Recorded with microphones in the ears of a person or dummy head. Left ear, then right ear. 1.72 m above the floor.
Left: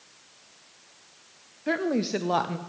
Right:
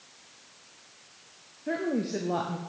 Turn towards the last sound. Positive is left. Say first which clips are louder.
# left 4 dB
turn(degrees=40)  # may be behind; listen again after turning